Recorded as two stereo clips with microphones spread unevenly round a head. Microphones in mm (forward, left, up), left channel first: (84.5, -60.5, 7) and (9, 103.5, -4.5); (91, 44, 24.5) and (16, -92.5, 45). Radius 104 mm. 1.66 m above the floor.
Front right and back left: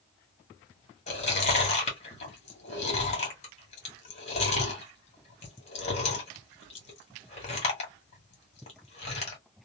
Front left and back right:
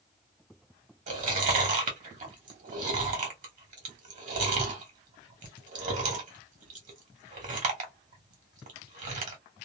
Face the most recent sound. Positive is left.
turn(degrees=-115)